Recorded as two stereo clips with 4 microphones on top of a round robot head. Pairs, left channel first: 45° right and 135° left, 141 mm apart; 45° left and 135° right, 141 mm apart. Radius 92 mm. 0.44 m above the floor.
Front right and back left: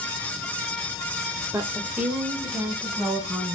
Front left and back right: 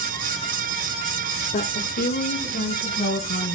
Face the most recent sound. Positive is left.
turn(degrees=45)